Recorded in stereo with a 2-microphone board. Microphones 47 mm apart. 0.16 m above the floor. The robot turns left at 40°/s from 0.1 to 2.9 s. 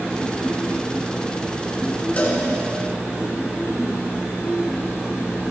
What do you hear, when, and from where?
2.2 s a cowbell: 30° left (ahead or behind), 1.8 m; by 2.4 s 35° left (ahead or behind), 1.8 m